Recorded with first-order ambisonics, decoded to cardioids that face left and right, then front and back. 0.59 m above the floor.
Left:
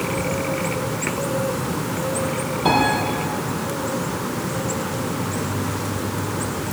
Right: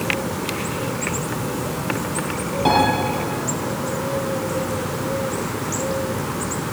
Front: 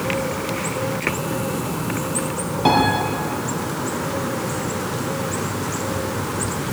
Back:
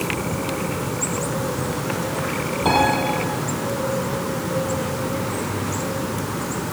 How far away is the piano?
About 8 m.